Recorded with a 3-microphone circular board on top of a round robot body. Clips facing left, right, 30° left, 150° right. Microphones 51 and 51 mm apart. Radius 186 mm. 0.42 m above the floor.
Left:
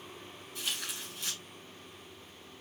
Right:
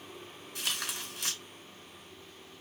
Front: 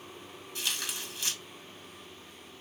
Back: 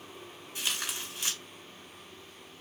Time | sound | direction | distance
0.6 | tearing paper | 75° right | 3 m